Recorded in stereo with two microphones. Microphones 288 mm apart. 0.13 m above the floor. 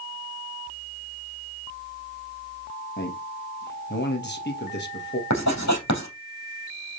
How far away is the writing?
About 3.5 m.